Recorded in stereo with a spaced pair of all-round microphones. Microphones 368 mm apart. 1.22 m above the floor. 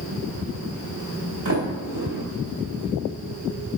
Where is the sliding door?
55° right (ahead or behind), 2 m.